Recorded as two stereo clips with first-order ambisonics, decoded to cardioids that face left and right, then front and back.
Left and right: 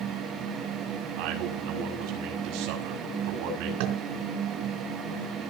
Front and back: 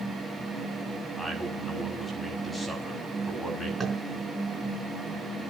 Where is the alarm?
I don't hear an alarm.